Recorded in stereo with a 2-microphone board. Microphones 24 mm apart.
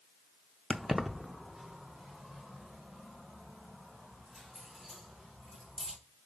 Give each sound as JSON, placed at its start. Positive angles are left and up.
{"t": 0.7, "sound": "keys jangling", "side_deg": -5, "distance_m": 0.6}